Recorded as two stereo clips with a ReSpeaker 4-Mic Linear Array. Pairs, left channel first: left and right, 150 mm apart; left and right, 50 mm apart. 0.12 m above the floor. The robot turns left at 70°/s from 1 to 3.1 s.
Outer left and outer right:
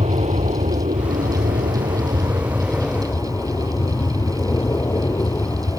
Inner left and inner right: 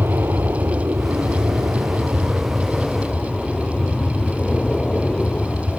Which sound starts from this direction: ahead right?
An aircraft, at 0.0 s.